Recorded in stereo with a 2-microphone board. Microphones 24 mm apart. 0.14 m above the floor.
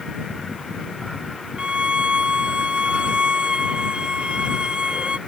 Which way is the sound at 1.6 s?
45° right (ahead or behind).